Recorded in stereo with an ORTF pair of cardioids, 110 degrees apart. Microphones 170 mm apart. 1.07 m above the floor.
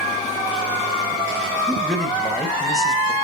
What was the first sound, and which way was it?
A man speaking, 5° left.